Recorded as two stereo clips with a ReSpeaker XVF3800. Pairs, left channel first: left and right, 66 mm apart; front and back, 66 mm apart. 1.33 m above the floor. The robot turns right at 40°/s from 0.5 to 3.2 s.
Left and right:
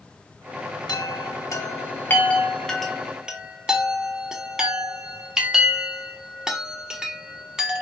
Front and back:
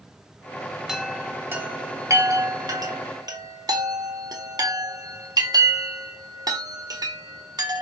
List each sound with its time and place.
0.9 s a chime: 100° left, 1.0 m; by 7.8 s 170° right, 1.0 m